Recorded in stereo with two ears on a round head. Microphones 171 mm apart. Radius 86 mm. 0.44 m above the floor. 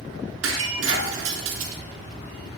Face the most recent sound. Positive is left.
turn(degrees=-85)